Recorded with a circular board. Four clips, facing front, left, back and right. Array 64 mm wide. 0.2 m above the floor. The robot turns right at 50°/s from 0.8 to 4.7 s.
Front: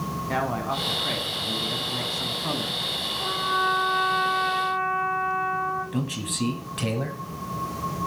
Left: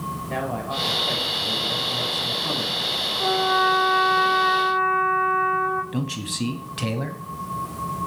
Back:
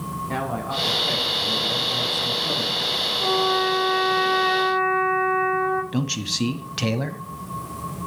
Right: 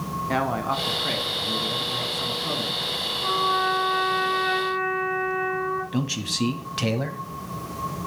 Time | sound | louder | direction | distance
0.3 | a man speaking | right 4 dB, front 1 dB | 75° right | 2 m
3.2 | a trumpet | left 3 dB, back 3 dB | 95° left | 7.5 m
5.9 | a man speaking | right 1 dB, back 3 dB | 160° right | 1.0 m